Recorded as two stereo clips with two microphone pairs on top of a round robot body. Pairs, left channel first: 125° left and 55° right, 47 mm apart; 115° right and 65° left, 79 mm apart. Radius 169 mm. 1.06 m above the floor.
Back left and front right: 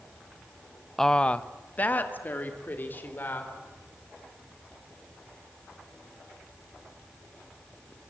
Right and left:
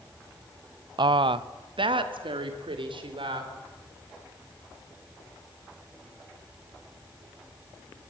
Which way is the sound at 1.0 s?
40° left.